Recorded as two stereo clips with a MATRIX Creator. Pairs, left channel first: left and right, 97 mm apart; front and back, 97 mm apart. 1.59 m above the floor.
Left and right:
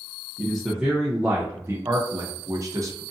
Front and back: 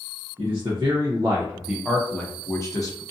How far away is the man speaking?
About 0.9 m.